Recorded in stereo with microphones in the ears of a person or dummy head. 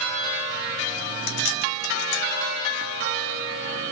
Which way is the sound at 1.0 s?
65° left (ahead or behind).